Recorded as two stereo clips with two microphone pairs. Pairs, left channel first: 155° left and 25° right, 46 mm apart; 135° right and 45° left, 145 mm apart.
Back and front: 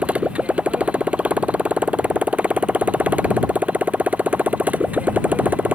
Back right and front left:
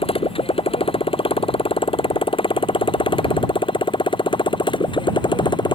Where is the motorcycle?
85° right; by 5.8 s 80° right.